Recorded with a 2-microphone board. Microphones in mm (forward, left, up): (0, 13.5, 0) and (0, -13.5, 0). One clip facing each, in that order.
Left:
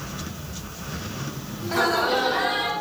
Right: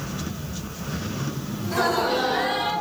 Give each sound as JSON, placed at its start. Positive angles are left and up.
{"t": 1.6, "sound": "laughter", "side_deg": 30, "distance_m": 0.9}